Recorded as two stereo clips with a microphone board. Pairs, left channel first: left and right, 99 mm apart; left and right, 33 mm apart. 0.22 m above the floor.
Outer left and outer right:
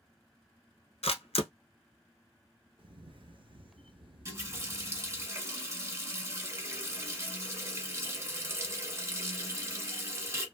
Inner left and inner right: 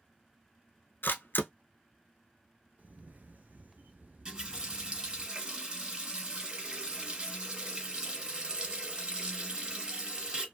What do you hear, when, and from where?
1.0 s a camera shutter: 80° left, 0.7 m
2.8 s a camera shutter: 55° right (ahead or behind), 0.5 m
4.2 s a running tap: 25° right (ahead or behind), 1.3 m